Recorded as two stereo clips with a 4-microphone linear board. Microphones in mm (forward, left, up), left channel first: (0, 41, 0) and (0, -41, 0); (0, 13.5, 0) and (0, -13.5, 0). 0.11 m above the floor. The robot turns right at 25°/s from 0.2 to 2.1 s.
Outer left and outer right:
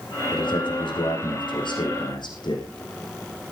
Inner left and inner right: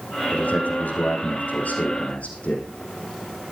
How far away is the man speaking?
About 7.5 m.